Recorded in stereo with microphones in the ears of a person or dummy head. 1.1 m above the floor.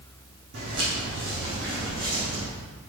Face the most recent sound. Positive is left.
turn(degrees=-40)  # may be behind; listen again after turning